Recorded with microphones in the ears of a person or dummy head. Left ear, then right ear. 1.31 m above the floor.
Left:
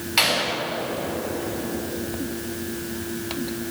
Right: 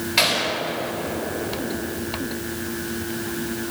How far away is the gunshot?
About 4.5 m.